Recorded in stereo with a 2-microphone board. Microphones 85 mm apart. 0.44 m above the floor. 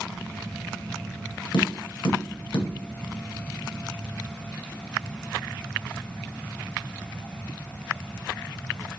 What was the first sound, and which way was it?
Tapping, 75° left (ahead or behind).